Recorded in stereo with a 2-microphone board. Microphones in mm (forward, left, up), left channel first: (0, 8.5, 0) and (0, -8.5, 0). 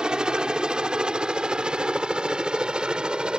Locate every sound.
0.0 s a helicopter: 50° right (ahead or behind); by 3.4 s 55° right (ahead or behind)